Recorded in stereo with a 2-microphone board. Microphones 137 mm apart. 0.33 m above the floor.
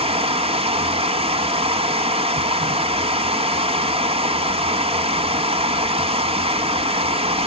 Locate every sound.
0.0 s running water: 45° right (ahead or behind), 1.1 m